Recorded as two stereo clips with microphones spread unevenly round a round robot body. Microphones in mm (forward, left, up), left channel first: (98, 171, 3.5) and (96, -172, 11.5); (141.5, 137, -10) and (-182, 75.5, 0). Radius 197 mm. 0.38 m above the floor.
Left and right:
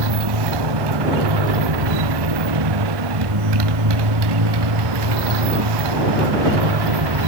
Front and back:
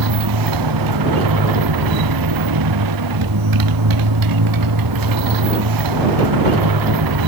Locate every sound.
0.0 s a motorcycle: 125° right